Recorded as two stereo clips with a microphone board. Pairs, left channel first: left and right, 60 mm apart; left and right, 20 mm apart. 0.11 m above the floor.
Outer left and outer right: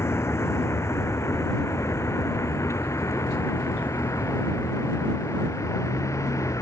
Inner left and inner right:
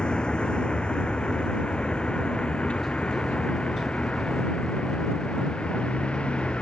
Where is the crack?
No crack in this recording.